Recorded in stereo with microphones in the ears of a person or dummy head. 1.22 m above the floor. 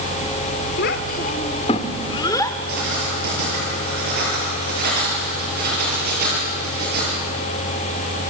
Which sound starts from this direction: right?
Writing, at 2.7 s.